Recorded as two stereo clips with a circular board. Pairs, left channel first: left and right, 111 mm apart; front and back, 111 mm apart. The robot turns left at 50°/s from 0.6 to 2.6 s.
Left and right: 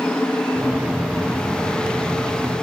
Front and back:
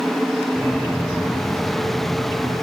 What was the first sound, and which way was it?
Only background noise.